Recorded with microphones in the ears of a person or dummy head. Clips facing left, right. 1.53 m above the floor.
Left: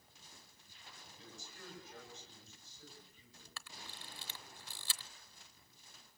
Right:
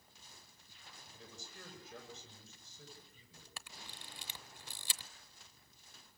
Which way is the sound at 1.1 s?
60° right (ahead or behind).